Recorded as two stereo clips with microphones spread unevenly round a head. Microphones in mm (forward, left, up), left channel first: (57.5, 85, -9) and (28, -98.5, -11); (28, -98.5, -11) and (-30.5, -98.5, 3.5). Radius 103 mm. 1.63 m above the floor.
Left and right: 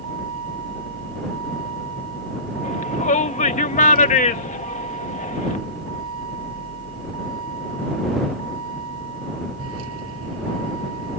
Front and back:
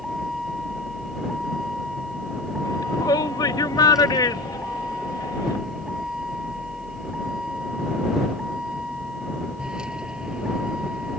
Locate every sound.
0.0 s a vehicle: 95° right; by 11.2 s 110° right
2.6 s a shout: 30° left